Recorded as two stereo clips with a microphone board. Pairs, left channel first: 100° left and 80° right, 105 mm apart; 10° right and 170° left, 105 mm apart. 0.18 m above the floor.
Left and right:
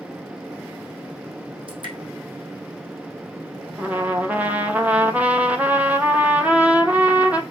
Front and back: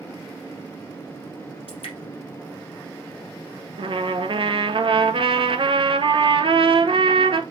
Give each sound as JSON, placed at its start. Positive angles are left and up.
{"t": 1.7, "sound": "dripping", "azimuth_deg": -40, "distance_m": 3.0}
{"t": 3.8, "sound": "a trumpet", "azimuth_deg": -150, "distance_m": 0.7}